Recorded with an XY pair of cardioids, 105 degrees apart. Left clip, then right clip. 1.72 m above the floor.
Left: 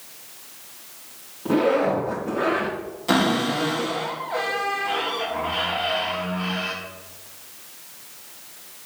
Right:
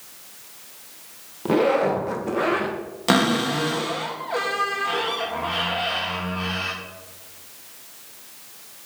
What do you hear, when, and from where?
1.4 s a zipper: 50° right, 2.0 m
3.1 s a cupboard door: 65° right, 2.5 m